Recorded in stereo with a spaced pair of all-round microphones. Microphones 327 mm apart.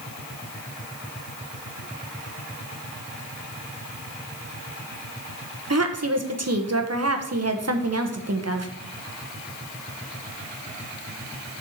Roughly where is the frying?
I don't hear frying.